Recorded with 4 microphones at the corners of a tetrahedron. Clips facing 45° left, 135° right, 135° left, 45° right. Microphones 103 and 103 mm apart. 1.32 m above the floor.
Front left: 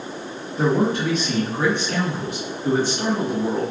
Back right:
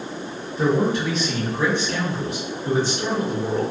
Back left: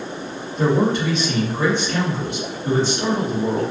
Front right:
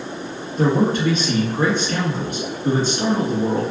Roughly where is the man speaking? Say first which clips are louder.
Even, even; ahead.